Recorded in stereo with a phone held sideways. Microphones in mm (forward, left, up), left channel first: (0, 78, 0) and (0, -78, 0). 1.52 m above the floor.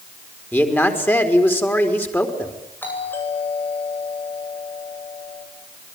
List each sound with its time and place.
0.5 s a man speaking: 15° left (ahead or behind), 4.5 m
2.8 s a doorbell: 15° left (ahead or behind), 9.5 m